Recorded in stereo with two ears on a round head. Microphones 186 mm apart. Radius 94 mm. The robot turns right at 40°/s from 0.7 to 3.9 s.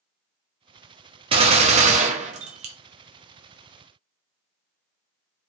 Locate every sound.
1.3 s a gunshot: 130° right, 0.5 m; by 2.8 s 70° right, 0.5 m